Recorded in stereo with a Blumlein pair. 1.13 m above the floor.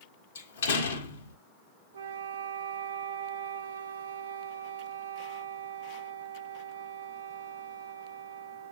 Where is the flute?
65° right, 0.6 m.